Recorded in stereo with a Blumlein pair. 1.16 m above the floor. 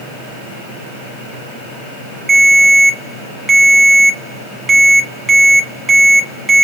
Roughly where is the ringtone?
Ahead.